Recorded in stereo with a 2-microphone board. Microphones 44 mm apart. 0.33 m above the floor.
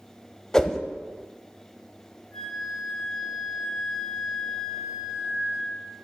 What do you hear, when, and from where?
0.5 s a whoosh: 15° left (ahead or behind), 0.7 m
2.3 s a flute: 10° left (ahead or behind), 2.0 m